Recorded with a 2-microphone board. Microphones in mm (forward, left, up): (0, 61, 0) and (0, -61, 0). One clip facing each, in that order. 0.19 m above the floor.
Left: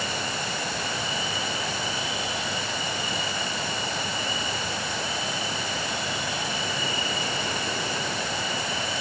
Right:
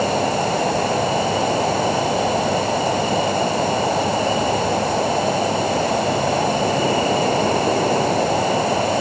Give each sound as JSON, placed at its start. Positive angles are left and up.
{"t": 0.0, "sound": "an insect", "side_deg": -55}